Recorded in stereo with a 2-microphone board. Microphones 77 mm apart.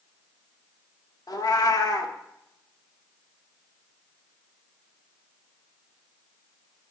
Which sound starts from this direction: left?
A cat meowing, at 1.3 s.